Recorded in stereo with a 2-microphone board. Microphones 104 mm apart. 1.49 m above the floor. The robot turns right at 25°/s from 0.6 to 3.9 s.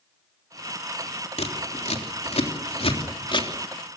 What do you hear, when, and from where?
1.4 s scissors: 80° left, 3.5 m; by 3.5 s 50° left (ahead or behind), 3.5 m